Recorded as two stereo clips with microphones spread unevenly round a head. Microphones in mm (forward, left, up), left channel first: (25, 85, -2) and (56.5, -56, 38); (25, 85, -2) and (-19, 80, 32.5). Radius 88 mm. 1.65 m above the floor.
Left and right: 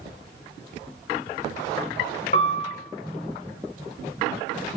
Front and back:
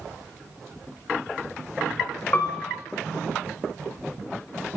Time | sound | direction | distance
2.3 | a piano | 60° left | 0.7 m